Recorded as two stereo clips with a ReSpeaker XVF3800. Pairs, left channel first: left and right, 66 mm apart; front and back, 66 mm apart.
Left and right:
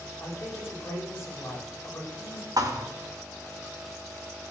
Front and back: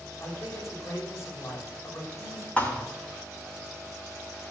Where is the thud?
70° right, 2 m.